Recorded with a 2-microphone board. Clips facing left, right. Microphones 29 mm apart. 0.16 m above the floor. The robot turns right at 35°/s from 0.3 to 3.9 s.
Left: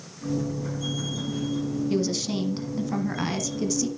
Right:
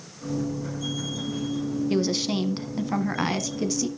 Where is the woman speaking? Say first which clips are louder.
Right 3 dB; 25° right (ahead or behind), 1.3 m; by 3.9 s 15° right (ahead or behind), 1.3 m.